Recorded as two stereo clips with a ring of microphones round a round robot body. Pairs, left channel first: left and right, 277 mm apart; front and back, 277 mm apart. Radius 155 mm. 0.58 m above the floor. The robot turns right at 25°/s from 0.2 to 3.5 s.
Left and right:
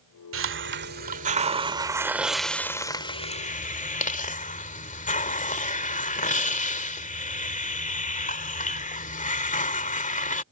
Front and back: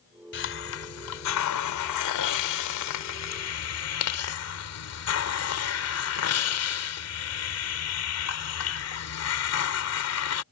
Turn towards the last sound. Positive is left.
turn(degrees=30)